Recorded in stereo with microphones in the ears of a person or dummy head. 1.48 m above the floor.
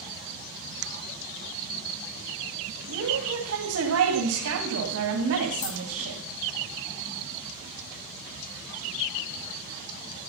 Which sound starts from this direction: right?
A woman speaking, at 2.9 s.